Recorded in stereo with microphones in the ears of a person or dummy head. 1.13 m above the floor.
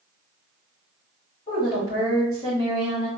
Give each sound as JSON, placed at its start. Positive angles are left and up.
{"t": 1.5, "sound": "a woman speaking", "side_deg": 20, "distance_m": 1.5}